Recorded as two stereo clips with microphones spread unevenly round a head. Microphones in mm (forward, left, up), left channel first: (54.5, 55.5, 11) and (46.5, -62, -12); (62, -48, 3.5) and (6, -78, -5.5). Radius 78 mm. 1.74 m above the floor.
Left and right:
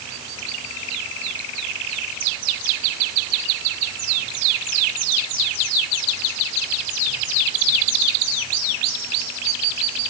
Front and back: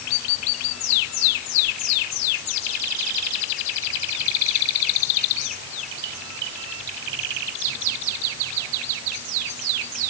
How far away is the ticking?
I don't hear ticking.